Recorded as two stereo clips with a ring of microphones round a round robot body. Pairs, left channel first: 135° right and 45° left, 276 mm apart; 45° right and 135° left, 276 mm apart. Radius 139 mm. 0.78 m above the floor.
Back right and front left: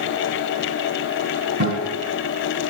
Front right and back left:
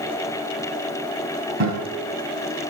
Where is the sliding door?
I don't hear a sliding door.